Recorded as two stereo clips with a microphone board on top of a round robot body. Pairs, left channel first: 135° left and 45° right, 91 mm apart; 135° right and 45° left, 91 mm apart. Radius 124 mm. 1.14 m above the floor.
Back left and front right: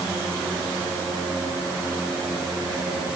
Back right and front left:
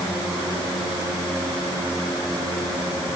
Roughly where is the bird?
No bird in this recording.